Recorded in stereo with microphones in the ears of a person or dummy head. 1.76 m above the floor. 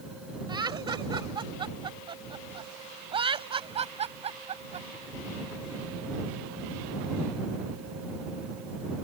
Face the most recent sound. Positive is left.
turn(degrees=-40)  # may be behind; listen again after turning